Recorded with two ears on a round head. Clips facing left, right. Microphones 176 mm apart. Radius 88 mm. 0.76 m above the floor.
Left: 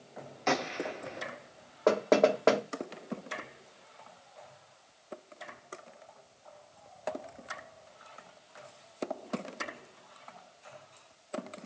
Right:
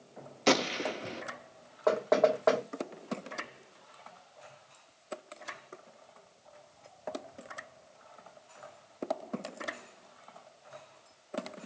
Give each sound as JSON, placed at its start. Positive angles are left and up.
{"t": 0.5, "sound": "a gunshot", "side_deg": -40, "distance_m": 0.5}
{"t": 1.9, "sound": "knocking", "side_deg": 35, "distance_m": 1.1}